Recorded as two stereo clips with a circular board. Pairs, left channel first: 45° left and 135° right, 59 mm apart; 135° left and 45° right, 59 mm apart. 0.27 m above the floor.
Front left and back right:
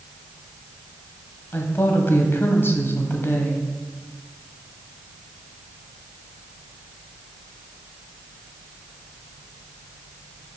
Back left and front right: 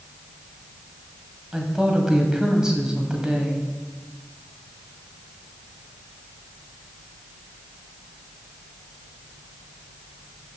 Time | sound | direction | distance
1.5 | a woman speaking | 25° left | 1.2 m